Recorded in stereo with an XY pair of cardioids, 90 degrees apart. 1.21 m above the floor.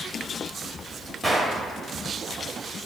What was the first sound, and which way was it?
A gunshot, straight ahead.